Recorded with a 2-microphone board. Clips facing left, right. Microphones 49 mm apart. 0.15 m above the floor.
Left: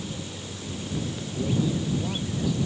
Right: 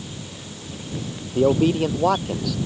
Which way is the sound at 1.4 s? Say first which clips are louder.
Right 10 dB; 70° right (ahead or behind).